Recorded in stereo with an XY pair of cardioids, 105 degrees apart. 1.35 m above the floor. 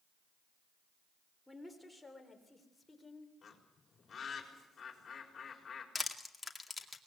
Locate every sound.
1.5 s a woman speaking: straight ahead, 3.5 m; by 3.3 s 30° left, 4 m
3.4 s a bird: 40° left, 4.5 m
6.0 s crushing: 10° left, 2 m